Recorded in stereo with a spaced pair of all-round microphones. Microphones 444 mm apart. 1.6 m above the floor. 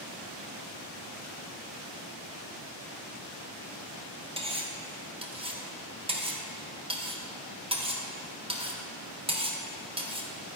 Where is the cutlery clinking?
10° right (ahead or behind), 0.7 m.